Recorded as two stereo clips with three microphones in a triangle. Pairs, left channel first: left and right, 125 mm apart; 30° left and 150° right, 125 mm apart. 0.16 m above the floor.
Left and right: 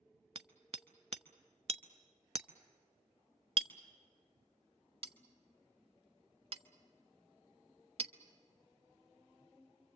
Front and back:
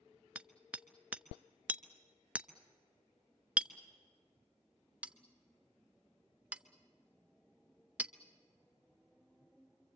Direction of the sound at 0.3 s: 75° right.